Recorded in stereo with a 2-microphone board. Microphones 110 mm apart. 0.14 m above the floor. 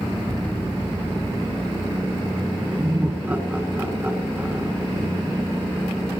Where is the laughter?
15° right (ahead or behind), 1.6 m.